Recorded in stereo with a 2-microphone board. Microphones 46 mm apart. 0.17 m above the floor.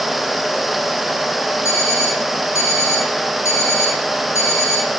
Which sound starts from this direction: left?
An alarm clock, at 1.6 s.